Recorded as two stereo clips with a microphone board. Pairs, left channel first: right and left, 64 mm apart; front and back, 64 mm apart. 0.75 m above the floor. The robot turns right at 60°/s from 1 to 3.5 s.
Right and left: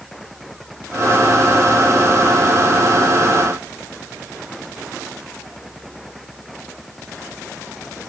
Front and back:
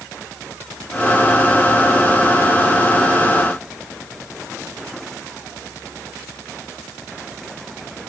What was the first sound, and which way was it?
Only background noise.